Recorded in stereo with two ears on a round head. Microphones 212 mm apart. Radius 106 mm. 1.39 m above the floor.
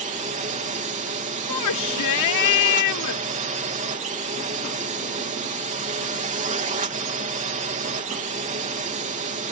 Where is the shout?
85° left.